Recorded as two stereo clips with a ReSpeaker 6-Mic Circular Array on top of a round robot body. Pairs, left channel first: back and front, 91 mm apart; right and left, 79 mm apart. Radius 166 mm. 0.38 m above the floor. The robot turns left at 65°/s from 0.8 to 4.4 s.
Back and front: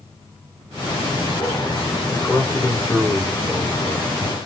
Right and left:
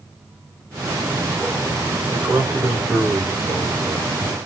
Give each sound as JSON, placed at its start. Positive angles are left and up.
{"t": 2.1, "sound": "a man speaking", "azimuth_deg": 145, "distance_m": 1.6}